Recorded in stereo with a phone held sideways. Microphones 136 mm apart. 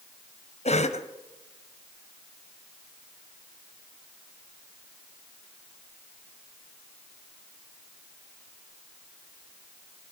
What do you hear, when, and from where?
0.7 s a cough: 55° left (ahead or behind), 0.9 m